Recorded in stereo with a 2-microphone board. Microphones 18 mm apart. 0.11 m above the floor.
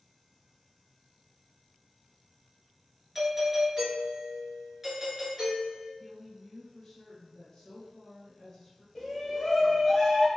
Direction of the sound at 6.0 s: 40° left (ahead or behind).